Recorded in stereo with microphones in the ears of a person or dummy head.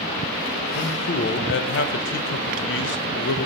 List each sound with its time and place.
0.8 s a man speaking: 60° left (ahead or behind), 0.9 m